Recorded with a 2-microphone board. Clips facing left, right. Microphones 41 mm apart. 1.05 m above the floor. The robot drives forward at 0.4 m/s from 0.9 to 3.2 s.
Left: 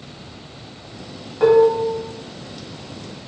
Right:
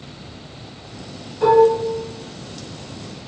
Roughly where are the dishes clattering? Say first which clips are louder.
Even; left.